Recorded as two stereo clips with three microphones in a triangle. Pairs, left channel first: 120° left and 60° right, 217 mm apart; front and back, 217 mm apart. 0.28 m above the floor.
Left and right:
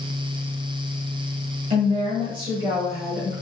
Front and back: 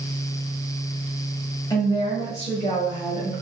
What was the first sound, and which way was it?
A woman speaking, 55° right.